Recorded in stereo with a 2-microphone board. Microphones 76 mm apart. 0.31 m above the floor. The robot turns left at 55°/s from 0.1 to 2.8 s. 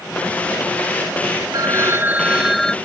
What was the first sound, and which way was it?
A phone ringing, 125° right.